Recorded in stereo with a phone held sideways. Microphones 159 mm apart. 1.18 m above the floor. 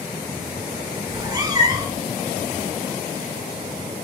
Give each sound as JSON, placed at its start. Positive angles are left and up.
{"t": 1.1, "sound": "a cat meowing", "side_deg": -25, "distance_m": 0.6}